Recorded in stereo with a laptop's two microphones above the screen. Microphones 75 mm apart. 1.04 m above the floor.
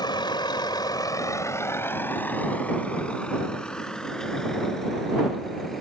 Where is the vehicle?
75° left (ahead or behind); by 5.8 s 5° left (ahead or behind).